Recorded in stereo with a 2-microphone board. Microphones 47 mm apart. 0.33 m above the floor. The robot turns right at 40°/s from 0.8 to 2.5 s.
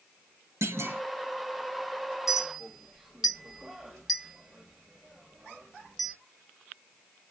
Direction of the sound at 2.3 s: 10° right (ahead or behind).